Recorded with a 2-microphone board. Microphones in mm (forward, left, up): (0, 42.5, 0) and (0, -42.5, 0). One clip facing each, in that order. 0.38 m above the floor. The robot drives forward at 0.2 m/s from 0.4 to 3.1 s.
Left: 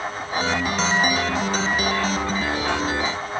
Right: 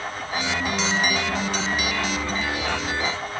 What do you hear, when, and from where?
Only background noise.